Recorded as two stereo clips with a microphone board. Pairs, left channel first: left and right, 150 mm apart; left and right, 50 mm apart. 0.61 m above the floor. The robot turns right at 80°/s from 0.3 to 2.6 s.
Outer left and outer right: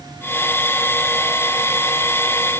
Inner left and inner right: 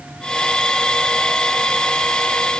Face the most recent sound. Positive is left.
No sound to turn to.